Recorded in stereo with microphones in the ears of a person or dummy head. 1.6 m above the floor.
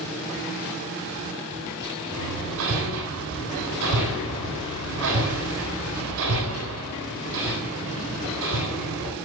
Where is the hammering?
75° right (ahead or behind), 8 m.